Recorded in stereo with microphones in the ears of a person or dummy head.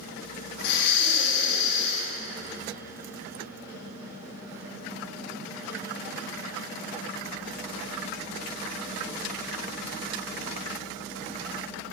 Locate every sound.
0.6 s breathing: 65° left (ahead or behind), 1.6 m